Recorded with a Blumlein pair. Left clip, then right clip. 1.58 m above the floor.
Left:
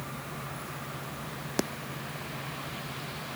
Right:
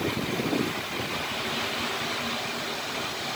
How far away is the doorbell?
No doorbell in this recording.